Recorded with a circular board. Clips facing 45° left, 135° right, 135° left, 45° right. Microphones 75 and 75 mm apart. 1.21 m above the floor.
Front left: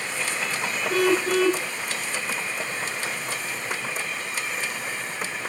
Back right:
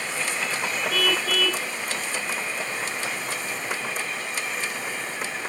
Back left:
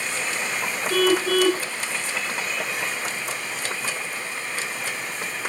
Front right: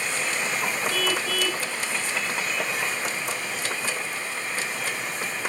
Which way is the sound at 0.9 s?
100° left.